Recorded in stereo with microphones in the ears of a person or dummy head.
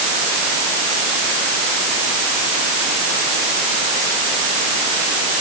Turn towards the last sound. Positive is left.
No sound to turn to.